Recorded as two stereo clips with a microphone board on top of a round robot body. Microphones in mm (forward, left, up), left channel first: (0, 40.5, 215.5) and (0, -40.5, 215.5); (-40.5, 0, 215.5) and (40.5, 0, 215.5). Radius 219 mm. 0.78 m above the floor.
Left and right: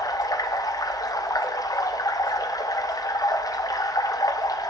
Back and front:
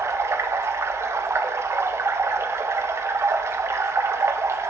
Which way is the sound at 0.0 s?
55° left.